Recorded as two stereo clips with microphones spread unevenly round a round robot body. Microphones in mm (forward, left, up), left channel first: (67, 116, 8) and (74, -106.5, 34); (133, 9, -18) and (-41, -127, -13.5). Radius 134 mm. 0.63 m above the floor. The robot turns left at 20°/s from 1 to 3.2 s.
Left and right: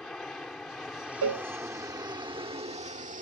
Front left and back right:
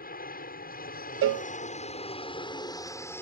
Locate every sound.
0.0 s an aircraft: 5° left; by 3.2 s 40° right
1.2 s a cowbell: 120° right; by 1.5 s 125° right